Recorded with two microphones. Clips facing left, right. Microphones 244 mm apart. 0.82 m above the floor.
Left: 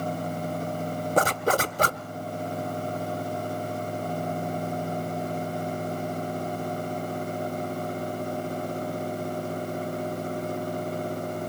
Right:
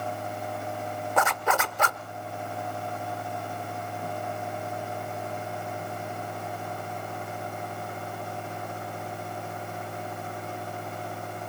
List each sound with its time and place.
1.2 s a zipper: 35° left (ahead or behind), 0.6 m